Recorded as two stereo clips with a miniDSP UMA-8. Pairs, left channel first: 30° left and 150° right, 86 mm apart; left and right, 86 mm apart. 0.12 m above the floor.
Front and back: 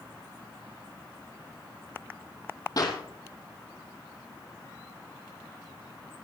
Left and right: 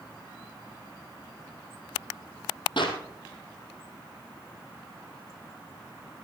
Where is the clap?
70° left, 2.5 m.